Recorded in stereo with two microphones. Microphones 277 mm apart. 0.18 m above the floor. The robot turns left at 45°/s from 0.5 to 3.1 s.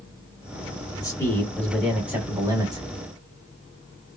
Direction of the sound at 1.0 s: 15° left (ahead or behind).